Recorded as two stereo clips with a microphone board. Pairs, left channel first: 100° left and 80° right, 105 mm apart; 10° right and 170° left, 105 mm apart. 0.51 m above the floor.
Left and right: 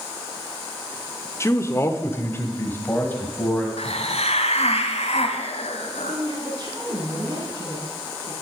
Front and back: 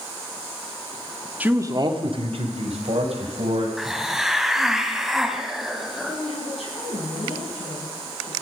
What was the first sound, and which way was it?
A man speaking, 110° left.